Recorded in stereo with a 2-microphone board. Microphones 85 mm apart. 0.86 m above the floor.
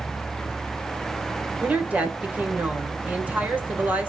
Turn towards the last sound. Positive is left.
turn(degrees=-15)  # may be behind; listen again after turning